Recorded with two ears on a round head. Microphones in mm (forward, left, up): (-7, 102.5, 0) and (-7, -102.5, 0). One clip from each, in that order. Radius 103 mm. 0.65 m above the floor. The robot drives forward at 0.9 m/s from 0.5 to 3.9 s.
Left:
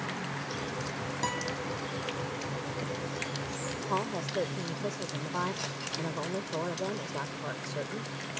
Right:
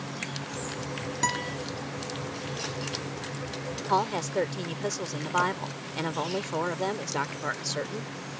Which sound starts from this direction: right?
A woman speaking, at 3.9 s.